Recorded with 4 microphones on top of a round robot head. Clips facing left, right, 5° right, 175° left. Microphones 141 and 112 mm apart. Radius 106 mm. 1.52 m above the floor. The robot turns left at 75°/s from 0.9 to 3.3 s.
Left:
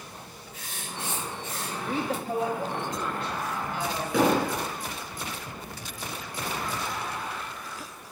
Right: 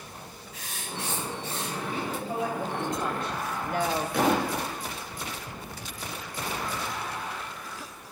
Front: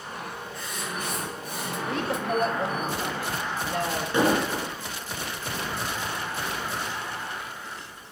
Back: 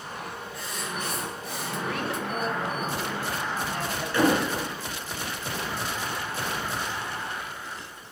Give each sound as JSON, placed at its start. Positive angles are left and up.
{"t": 0.5, "sound": "writing", "azimuth_deg": -105, "distance_m": 7.0}
{"t": 1.9, "sound": "a woman speaking", "azimuth_deg": 65, "distance_m": 3.0}
{"t": 4.1, "sound": "an explosion", "azimuth_deg": 60, "distance_m": 5.5}